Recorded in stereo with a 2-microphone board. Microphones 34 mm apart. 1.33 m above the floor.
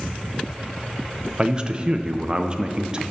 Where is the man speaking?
25° right (ahead or behind), 0.5 m.